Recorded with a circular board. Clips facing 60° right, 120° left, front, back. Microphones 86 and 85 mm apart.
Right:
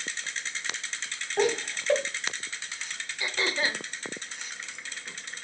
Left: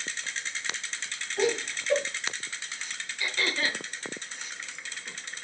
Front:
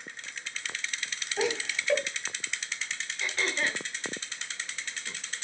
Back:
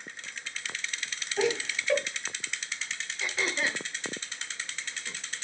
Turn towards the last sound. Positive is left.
turn(degrees=-100)